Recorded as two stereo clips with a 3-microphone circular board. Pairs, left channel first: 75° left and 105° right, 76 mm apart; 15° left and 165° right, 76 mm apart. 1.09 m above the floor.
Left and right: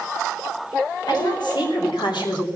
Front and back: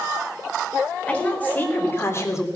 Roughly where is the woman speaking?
Left.